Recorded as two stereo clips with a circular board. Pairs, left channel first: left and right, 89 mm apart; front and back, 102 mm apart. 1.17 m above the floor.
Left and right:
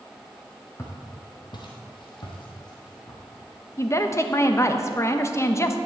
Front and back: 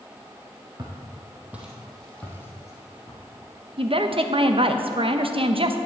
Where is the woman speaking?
150° left, 0.9 m.